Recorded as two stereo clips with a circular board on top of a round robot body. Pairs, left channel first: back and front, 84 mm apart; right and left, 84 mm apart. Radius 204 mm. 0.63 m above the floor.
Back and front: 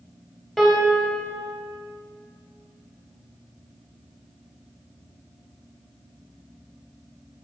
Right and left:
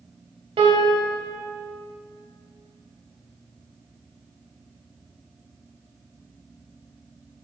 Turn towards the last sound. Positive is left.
turn(degrees=90)